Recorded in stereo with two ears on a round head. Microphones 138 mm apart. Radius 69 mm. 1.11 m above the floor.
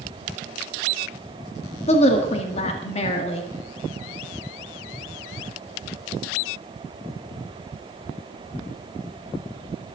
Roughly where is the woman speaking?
Left.